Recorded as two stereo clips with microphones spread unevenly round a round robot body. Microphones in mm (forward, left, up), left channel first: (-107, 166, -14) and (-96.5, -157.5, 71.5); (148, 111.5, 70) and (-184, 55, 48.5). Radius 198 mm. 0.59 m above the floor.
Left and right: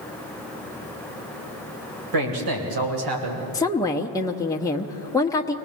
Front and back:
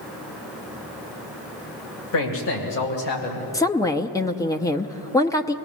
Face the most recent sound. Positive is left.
turn(degrees=85)